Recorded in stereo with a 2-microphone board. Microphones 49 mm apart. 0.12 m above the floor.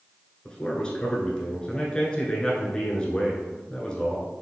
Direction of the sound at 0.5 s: 15° left (ahead or behind).